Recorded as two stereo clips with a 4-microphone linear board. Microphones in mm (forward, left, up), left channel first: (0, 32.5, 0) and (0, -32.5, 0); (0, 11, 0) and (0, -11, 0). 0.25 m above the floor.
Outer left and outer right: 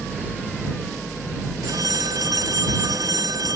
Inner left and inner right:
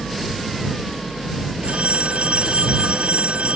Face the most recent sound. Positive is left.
turn(degrees=-70)  # may be behind; listen again after turning